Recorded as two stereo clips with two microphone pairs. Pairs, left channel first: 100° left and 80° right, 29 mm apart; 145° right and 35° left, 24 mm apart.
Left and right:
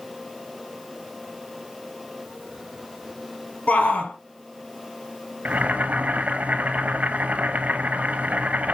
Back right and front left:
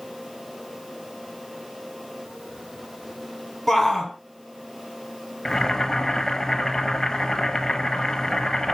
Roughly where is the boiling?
Right.